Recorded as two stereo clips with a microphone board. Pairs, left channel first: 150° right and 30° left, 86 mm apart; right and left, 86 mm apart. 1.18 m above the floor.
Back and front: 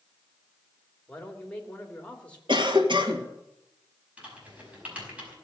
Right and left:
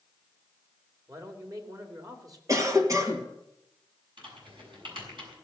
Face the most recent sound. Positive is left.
turn(degrees=105)